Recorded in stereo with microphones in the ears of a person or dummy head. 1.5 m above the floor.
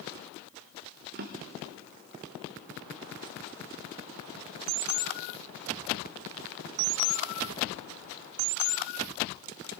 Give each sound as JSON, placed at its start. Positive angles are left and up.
{"t": 1.1, "sound": "a drawer", "side_deg": -45, "distance_m": 0.8}